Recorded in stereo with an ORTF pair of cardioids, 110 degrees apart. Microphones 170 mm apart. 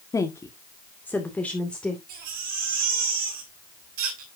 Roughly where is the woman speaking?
Ahead.